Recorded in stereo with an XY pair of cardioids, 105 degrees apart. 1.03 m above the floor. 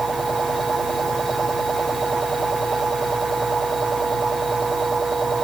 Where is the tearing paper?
I don't hear tearing paper.